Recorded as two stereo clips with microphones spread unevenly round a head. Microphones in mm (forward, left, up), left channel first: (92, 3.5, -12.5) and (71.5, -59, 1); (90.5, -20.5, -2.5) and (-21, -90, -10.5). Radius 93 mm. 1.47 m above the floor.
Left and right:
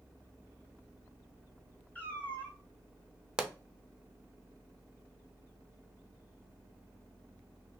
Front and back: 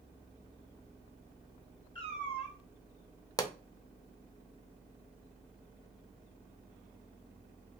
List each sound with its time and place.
1.9 s a cat meowing: straight ahead, 1.4 m
3.4 s a pop: 30° right, 0.6 m